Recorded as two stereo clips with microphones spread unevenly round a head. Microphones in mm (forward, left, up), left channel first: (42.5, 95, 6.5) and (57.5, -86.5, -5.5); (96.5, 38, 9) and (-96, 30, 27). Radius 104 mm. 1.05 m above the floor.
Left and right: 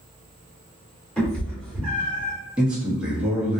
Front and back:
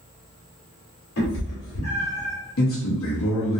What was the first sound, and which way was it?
A cat meowing, 10° left.